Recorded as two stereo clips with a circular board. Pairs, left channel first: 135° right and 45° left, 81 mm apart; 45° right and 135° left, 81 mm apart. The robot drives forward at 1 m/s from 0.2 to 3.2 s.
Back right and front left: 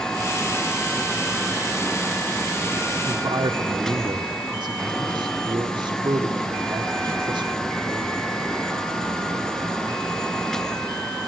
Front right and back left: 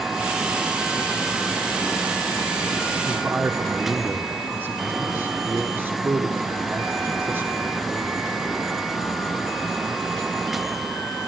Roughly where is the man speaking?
Ahead left.